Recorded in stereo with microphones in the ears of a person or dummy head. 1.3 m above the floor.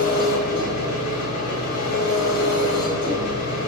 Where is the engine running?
65° left (ahead or behind), 4 m.